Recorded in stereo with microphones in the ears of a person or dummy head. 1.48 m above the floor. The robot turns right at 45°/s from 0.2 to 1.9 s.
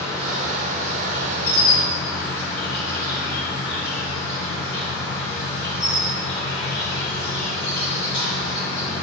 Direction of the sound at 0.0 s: 25° left.